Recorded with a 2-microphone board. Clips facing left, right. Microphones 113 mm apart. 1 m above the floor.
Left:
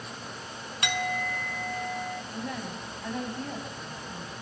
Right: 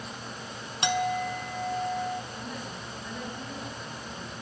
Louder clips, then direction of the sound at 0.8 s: Right 4 dB; 25° right (ahead or behind).